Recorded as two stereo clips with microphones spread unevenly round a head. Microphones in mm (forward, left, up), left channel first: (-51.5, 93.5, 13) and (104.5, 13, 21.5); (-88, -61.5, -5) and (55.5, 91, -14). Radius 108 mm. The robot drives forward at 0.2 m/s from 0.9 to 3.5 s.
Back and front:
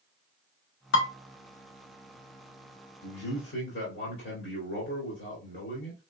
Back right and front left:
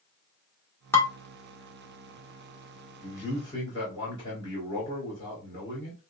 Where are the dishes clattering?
145° left, 1.4 m; by 1.1 s 150° left, 1.5 m.